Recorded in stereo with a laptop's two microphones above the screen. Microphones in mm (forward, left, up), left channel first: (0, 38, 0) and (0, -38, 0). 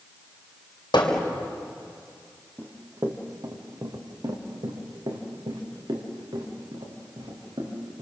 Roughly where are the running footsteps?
Right.